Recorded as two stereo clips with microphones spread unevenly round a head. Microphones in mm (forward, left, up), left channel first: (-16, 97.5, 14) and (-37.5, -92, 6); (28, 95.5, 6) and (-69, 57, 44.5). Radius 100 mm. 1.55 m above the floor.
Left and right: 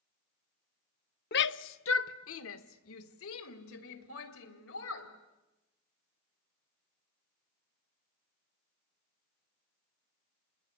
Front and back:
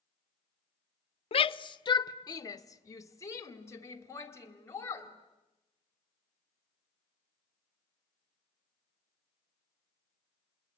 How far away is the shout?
About 0.7 m.